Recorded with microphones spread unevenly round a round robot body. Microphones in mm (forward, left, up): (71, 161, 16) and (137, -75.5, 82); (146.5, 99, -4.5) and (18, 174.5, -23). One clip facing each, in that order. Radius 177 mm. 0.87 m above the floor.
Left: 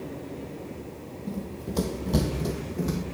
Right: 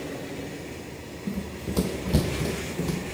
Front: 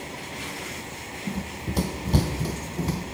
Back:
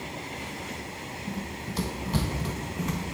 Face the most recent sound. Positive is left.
turn(degrees=20)